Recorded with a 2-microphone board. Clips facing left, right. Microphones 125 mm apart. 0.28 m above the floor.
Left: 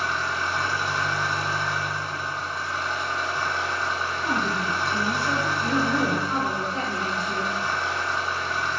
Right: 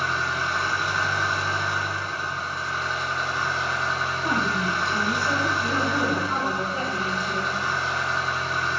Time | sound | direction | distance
0.0 | an engine running | 60° right (ahead or behind) | 1.2 m
4.2 | a woman speaking | 20° right (ahead or behind) | 0.9 m
5.6 | a woman speaking | 15° right (ahead or behind) | 1.2 m